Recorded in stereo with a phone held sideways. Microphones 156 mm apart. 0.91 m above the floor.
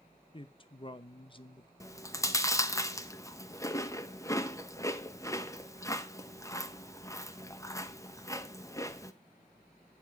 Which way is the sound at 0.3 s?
35° left (ahead or behind).